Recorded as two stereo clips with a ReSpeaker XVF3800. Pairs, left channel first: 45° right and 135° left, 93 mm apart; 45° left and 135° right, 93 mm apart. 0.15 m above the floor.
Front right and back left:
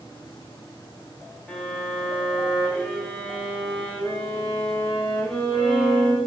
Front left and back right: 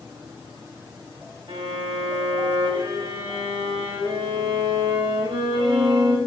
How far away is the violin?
About 5 m.